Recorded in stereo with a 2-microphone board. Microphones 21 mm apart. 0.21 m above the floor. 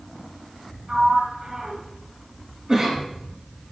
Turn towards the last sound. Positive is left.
turn(degrees=-30)  # may be behind; listen again after turning